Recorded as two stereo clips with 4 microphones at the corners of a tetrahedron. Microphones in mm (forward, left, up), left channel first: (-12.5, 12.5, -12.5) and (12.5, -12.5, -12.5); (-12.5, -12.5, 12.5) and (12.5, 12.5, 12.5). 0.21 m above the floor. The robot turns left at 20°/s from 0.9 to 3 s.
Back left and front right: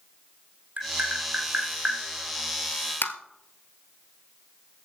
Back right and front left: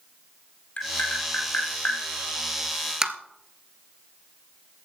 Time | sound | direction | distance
0.8 | tapping | 90° right | 1.9 m
3.0 | tapping | 115° left | 1.1 m